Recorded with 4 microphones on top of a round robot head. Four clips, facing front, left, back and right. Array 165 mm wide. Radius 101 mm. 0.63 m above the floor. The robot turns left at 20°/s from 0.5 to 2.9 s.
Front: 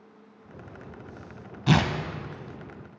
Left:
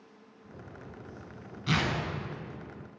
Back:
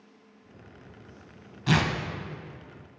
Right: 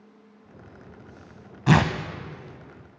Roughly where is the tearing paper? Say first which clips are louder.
Right 10 dB, front 2 dB; ahead right.